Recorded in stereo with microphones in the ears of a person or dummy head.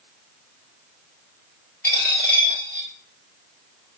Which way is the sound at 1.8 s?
15° left (ahead or behind).